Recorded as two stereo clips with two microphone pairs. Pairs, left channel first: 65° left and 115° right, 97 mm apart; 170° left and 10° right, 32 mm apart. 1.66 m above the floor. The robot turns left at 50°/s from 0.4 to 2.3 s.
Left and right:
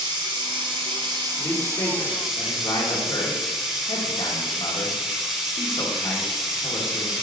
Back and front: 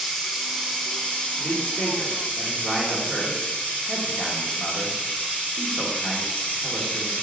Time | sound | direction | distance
0.0 | running water | 100° right | 1.0 m
1.4 | a man speaking | 130° left | 1.1 m